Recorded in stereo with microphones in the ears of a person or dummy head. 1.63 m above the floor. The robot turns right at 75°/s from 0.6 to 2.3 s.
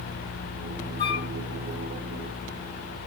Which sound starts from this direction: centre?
A flute, at 1.0 s.